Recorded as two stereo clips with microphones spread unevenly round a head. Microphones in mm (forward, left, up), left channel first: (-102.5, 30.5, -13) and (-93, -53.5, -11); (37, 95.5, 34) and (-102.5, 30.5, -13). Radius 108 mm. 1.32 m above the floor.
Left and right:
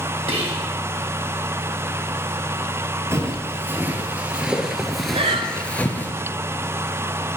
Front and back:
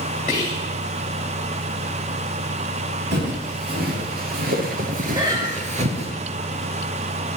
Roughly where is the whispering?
Ahead right.